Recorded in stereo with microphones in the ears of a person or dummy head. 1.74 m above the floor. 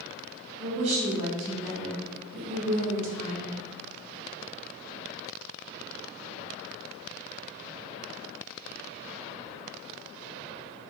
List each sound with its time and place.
0.6 s a woman speaking: 45° right (ahead or behind), 3 m; by 3.6 s 65° right (ahead or behind), 4.5 m